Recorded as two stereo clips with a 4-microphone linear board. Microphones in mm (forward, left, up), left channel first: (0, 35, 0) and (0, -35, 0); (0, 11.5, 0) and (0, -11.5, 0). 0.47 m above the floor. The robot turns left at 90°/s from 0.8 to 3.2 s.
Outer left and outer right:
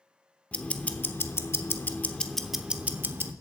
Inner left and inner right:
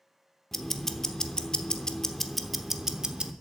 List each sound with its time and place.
0.5 s ticking: 150° left, 0.8 m; by 3.3 s 65° right, 0.8 m